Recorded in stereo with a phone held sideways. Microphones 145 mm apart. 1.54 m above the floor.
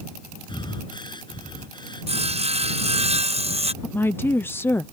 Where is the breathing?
30° left (ahead or behind).